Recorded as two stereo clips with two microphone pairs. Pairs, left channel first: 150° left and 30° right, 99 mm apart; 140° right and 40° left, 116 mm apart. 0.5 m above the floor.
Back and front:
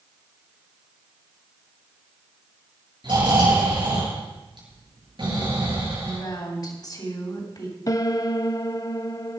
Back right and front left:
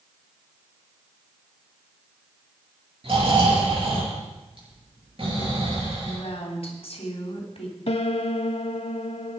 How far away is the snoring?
About 7 m.